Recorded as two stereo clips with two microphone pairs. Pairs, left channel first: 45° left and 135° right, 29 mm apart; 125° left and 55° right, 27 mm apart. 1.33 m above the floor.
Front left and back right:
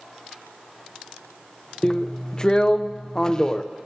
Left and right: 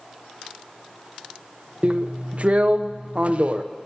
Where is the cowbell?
No cowbell in this recording.